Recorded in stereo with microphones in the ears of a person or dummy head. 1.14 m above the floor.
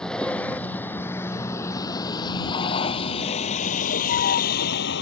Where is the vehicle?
Centre (ahead or behind); by 5.0 s 60° left (ahead or behind).